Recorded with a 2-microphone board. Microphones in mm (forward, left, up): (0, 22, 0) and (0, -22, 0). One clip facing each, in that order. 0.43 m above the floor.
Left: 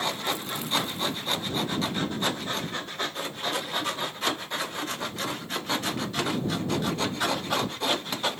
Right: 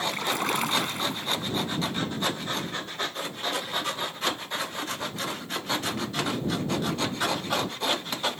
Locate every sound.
0.1 s a splash: 85° right